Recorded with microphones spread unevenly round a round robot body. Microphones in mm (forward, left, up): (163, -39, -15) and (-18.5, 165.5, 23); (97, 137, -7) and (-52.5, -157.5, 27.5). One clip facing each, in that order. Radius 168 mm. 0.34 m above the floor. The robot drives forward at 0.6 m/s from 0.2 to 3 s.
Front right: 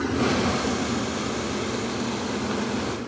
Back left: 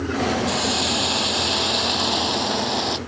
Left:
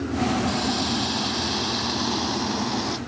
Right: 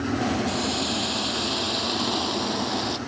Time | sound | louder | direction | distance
0.5 | a hiss | even, left 2 dB | 145° left | ?